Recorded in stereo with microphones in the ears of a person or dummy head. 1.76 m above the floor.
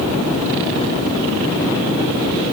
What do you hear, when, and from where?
Only background noise.